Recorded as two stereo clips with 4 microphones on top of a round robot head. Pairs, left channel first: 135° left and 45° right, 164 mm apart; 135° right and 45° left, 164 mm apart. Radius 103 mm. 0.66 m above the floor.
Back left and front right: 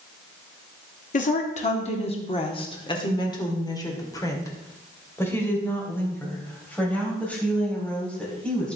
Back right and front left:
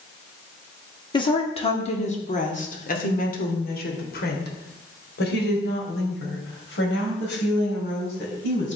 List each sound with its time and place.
1.1 s a woman speaking: 165° left, 1.6 m; by 8.8 s 140° right, 5 m